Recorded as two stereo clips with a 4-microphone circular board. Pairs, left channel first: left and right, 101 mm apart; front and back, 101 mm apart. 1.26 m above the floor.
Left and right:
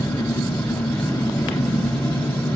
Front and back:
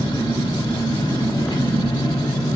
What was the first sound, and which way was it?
An engine running, 10° left.